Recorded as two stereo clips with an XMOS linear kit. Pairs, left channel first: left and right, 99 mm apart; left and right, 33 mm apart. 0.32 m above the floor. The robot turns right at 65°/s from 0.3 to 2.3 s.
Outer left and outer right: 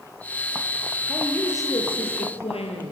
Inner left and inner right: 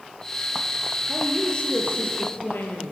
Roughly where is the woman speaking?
Ahead.